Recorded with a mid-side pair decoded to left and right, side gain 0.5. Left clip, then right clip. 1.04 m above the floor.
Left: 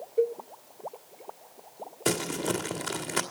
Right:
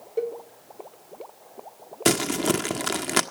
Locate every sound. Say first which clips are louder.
0.2 s a cowbell: left 2 dB; 65° right, 1.0 m
2.0 s crumpling: right 6 dB; 65° right, 1.3 m